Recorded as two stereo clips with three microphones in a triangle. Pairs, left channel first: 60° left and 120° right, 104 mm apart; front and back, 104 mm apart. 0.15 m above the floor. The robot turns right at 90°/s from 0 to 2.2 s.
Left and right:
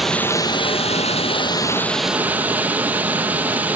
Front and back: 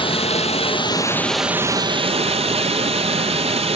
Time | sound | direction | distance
0.0 | running water | 35° right | 0.8 m